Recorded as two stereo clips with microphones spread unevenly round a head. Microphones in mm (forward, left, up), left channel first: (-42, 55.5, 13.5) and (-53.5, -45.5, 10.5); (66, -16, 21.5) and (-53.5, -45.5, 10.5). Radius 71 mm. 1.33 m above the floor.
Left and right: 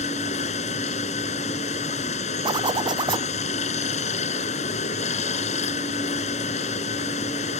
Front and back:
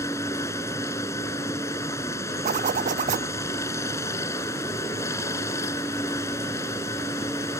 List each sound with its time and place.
0.0 s running water: 85° left
2.5 s a zipper: 140° right